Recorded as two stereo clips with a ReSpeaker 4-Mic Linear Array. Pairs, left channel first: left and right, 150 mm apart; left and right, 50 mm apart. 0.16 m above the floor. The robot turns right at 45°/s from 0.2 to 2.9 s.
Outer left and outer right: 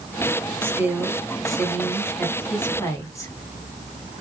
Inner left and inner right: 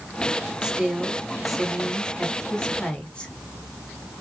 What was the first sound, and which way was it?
A woman speaking, 15° right (ahead or behind).